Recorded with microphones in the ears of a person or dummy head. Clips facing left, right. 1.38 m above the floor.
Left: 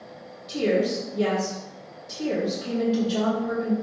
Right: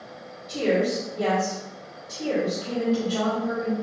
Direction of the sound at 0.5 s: 35° left (ahead or behind).